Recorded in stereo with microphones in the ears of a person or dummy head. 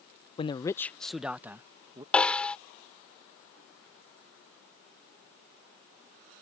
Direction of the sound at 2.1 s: 5° left (ahead or behind).